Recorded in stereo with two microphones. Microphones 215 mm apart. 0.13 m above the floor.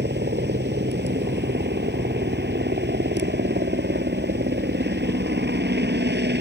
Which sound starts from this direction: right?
A helicopter, at 0.0 s.